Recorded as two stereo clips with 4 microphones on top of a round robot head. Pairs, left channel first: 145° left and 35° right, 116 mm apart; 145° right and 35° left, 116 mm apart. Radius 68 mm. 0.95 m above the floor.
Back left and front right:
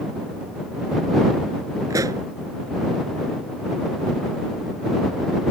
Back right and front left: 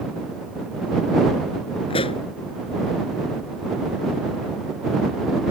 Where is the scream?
No scream in this recording.